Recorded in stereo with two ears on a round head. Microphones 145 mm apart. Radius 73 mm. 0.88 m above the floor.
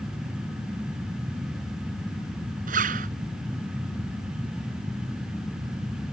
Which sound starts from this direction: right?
A zipper, at 2.7 s.